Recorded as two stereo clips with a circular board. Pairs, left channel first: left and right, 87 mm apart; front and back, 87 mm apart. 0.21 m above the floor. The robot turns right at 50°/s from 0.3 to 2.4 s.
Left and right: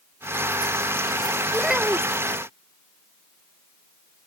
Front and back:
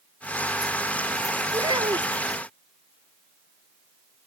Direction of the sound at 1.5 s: 175° left.